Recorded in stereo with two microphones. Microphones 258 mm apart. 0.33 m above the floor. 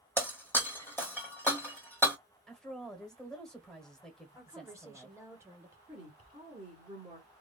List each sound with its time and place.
0.2 s breaking glass: 10° left (ahead or behind), 1.1 m
2.5 s a woman speaking: centre (ahead or behind), 1.1 m
4.3 s a woman speaking: 10° right (ahead or behind), 1.0 m
5.9 s a woman speaking: 20° right (ahead or behind), 1.4 m